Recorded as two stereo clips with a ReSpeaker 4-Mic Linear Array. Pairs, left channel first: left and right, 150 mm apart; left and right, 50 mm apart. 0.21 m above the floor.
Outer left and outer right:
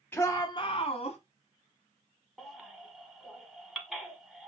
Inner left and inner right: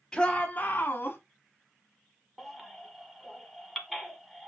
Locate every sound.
0.1 s a shout: 15° left (ahead or behind), 1.1 m; by 1.2 s 45° left (ahead or behind), 1.7 m
2.4 s a baby crying: centre (ahead or behind), 1.2 m